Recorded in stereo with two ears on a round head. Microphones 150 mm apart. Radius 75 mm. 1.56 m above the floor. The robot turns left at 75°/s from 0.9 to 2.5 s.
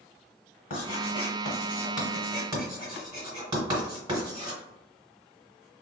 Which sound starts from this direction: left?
Writing, at 0.7 s.